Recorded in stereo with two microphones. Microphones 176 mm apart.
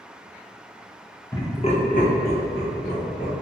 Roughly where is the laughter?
Centre.